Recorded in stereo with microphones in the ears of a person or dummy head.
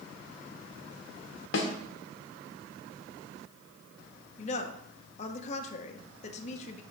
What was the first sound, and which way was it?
A snare drum, 60° left (ahead or behind).